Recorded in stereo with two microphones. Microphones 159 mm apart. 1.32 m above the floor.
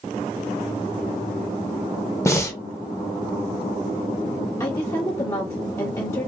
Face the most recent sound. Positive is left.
turn(degrees=20)  # may be behind; listen again after turning